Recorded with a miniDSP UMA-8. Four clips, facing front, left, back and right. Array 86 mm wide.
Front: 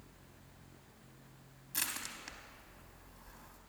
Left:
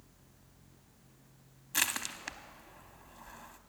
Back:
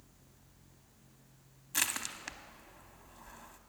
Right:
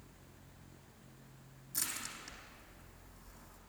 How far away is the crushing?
About 0.7 m.